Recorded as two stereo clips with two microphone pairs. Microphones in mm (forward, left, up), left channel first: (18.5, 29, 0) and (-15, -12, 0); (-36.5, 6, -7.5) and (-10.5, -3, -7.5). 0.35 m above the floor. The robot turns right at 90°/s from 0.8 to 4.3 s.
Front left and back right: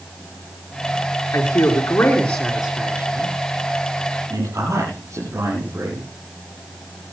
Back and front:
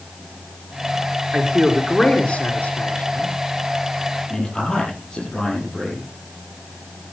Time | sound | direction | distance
1.3 | a man speaking | 25° left | 5.5 m
4.3 | a man speaking | 130° right | 7.5 m